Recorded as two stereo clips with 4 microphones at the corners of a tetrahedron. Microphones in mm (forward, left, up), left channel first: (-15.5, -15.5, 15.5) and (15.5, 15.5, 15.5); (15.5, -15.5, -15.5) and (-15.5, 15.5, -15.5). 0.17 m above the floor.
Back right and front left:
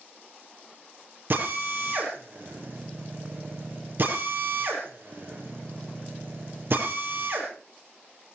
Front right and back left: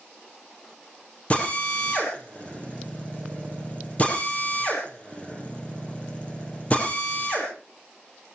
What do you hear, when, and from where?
1.3 s a drill: 10° left, 5 m